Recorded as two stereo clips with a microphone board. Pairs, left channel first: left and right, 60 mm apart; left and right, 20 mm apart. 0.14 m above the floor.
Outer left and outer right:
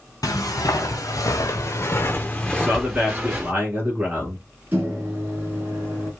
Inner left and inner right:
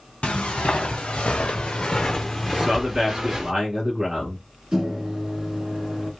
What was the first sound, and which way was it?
Footsteps, 85° left.